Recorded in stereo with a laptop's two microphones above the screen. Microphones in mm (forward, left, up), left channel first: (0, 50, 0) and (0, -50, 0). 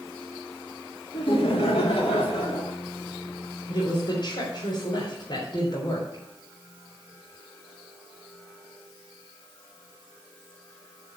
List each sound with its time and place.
1.1 s laughter: 60° left (ahead or behind), 1.8 m; by 2.8 s 75° left (ahead or behind), 3.5 m
3.7 s a woman speaking: 50° left (ahead or behind), 3.5 m